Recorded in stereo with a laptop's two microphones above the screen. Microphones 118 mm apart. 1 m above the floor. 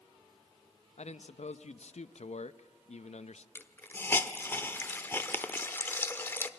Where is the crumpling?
No crumpling in this recording.